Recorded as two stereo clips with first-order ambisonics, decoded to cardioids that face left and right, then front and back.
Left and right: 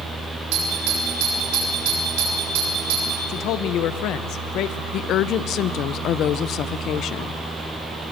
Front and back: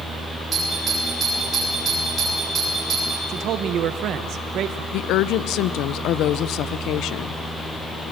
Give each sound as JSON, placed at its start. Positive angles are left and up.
{"t": 0.5, "sound": "a doorbell", "azimuth_deg": -110, "distance_m": 7.0}
{"t": 3.3, "sound": "a man speaking", "azimuth_deg": 130, "distance_m": 1.0}
{"t": 4.9, "sound": "a woman speaking", "azimuth_deg": 40, "distance_m": 0.6}